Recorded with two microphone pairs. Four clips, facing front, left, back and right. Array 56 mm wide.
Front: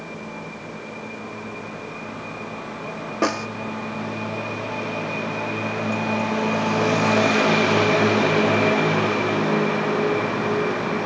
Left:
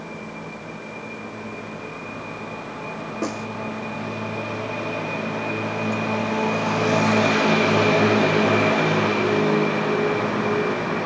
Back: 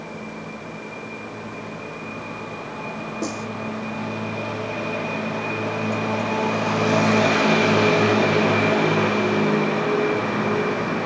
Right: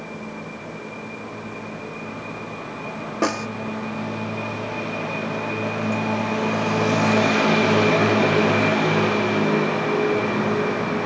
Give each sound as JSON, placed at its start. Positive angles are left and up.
{"t": 3.2, "sound": "a snare drum", "azimuth_deg": -40}